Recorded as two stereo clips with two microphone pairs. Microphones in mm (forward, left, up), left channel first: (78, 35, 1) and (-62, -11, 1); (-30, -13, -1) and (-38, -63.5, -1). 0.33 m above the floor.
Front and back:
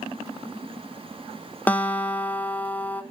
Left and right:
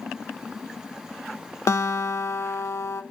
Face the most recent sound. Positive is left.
turn(degrees=95)